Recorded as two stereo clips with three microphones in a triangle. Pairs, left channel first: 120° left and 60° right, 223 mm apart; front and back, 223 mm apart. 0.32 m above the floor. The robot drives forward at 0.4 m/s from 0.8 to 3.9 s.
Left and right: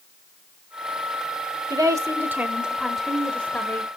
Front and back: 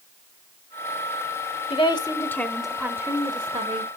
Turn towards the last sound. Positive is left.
turn(degrees=-170)